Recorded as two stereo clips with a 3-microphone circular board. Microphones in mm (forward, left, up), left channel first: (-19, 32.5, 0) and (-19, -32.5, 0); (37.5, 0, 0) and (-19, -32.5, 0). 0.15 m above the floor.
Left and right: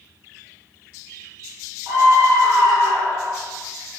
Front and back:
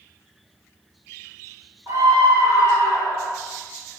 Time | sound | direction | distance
1.9 | a scream | 130° right | 4 m